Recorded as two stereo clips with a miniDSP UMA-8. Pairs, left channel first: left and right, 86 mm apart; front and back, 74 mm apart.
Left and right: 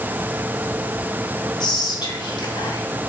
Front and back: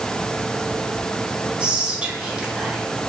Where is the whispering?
105° left, 0.6 m.